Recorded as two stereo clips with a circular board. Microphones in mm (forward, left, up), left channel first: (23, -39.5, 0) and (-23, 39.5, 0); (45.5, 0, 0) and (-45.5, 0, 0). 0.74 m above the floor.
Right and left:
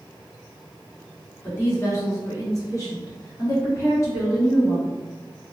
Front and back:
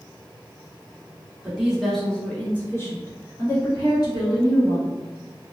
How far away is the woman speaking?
About 1.2 m.